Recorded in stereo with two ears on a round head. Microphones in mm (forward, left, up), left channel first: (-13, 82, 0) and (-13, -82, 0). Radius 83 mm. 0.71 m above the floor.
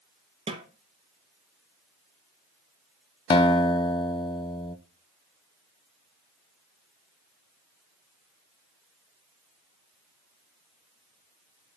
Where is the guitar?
30° left (ahead or behind), 0.6 m.